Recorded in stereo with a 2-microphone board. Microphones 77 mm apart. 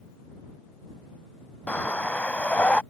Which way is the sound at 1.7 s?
20° left (ahead or behind).